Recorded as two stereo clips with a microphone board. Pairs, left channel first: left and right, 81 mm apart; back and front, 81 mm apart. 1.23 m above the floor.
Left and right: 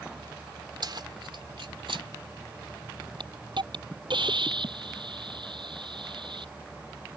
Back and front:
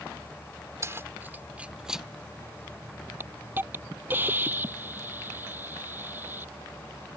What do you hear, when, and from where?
0.8 s keys jangling: 55° right; by 2.1 s 85° right
3.2 s a hiss: 65° right